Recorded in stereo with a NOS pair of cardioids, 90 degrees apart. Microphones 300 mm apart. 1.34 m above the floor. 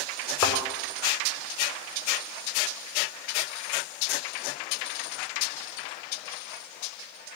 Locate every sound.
0.4 s a thud: 65° left, 5.5 m